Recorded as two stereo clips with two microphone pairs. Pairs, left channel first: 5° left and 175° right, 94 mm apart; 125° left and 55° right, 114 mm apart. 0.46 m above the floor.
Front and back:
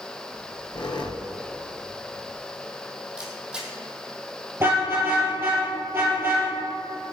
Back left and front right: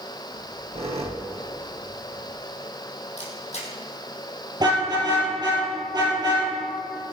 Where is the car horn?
105° right, 6 m.